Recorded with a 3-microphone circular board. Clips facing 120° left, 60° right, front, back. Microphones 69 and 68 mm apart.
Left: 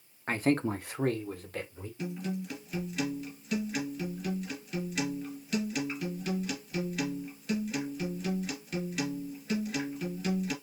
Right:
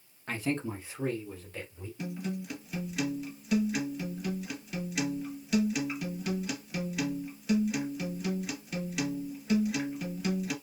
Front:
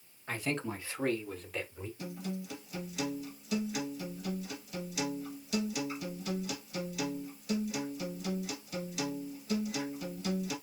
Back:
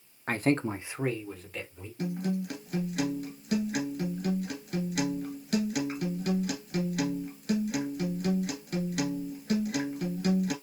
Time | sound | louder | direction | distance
0.3 | a man speaking | left 5 dB, back 8 dB | 160° left | 0.8 m
2.0 | a guitar | left 1 dB, back 10 dB | 145° right | 2.0 m